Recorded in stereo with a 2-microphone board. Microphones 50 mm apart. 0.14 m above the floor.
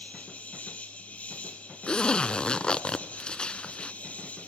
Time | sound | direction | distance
0.0 | an insect | 25° left (ahead or behind) | 5.5 m
1.9 | a zipper | 20° left (ahead or behind) | 0.7 m